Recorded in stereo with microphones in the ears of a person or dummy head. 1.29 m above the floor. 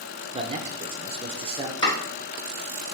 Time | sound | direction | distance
0.3 | a man speaking | 25° right (ahead or behind) | 0.7 m
1.8 | chopping | 25° left (ahead or behind) | 3.5 m